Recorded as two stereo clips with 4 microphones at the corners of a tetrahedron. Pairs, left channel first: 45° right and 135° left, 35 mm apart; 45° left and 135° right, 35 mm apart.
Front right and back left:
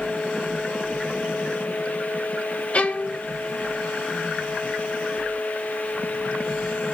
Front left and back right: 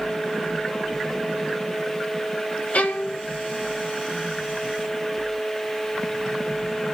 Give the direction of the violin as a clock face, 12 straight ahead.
12 o'clock.